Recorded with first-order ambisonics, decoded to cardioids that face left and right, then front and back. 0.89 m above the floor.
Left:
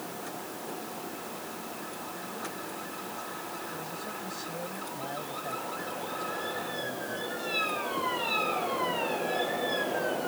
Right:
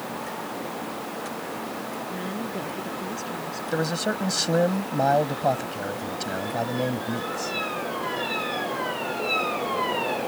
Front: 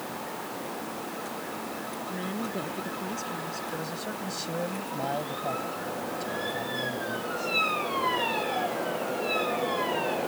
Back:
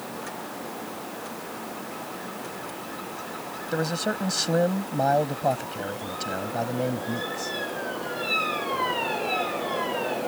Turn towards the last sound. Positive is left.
turn(degrees=-120)